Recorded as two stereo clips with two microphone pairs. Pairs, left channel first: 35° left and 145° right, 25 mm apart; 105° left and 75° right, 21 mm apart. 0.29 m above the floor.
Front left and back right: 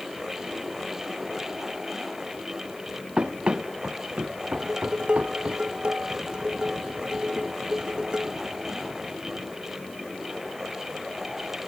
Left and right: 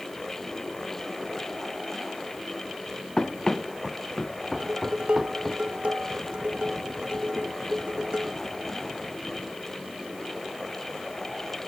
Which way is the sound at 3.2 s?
165° left.